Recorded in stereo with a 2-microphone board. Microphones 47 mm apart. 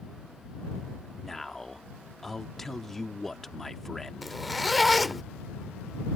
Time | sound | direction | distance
1.2 | a man speaking | 5° left (ahead or behind) | ?
4.2 | a zipper | centre (ahead or behind) | ?